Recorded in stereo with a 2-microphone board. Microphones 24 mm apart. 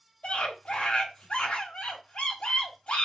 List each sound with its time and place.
0.2 s a scream: 60° left (ahead or behind), 2.5 m